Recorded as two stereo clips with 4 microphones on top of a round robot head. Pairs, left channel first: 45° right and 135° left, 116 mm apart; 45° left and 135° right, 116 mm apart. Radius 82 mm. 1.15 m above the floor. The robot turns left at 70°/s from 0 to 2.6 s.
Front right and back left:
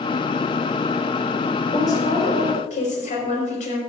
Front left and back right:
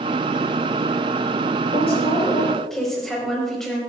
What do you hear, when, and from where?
1.7 s a woman speaking: 20° left, 5.5 m; by 3.8 s 40° right, 5.5 m